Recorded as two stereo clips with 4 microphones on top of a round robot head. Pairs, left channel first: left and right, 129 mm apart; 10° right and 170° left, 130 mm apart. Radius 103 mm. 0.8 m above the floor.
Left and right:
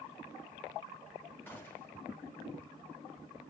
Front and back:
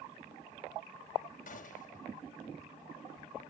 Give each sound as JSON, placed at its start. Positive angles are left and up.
{"t": 1.5, "sound": "a gunshot", "azimuth_deg": 10, "distance_m": 2.0}